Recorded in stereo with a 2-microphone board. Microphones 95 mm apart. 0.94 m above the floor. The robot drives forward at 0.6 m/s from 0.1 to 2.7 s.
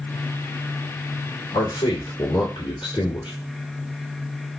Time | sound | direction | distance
1.5 | a man speaking | 55° left (ahead or behind) | 2.5 m